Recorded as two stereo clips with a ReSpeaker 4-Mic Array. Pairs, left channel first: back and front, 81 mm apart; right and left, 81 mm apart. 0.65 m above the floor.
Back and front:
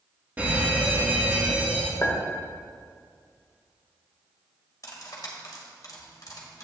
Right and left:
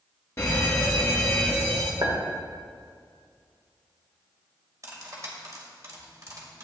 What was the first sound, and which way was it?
A fire alarm, 55° right.